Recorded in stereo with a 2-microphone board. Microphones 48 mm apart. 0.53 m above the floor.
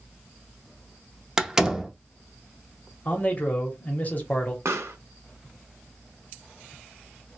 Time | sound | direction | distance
1.4 | a door slam | 10° right (ahead or behind) | 0.5 m
3.0 | a man speaking | 35° left (ahead or behind) | 1.0 m
4.7 | a pop | 75° right (ahead or behind) | 0.5 m